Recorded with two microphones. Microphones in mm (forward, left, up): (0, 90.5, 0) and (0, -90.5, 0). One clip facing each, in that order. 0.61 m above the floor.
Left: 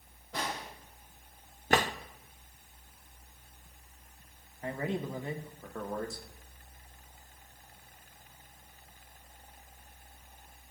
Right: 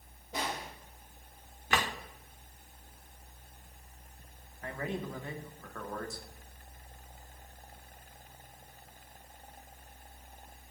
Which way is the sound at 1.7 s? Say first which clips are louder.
Left 5 dB; 40° left (ahead or behind).